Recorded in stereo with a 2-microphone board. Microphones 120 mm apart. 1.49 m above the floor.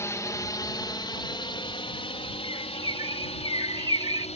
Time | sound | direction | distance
0.0 | a drone | 25° left (ahead or behind) | ?
2.4 | a bird | 40° right (ahead or behind) | ?